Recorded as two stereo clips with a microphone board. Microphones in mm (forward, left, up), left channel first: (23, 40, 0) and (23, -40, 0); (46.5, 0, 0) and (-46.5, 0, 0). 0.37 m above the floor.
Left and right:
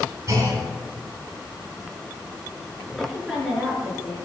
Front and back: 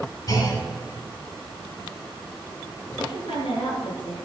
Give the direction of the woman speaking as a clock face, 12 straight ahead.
12 o'clock.